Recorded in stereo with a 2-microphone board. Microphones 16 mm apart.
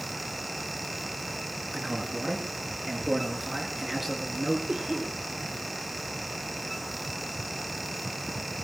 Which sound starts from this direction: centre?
A man speaking, at 1.7 s.